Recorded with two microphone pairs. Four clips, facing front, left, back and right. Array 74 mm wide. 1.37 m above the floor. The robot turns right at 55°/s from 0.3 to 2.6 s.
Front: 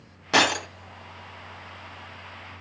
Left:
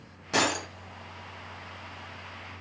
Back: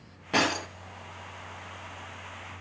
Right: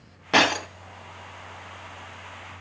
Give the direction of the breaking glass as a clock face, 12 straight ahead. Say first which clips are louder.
Right 6 dB, front 5 dB; 2 o'clock.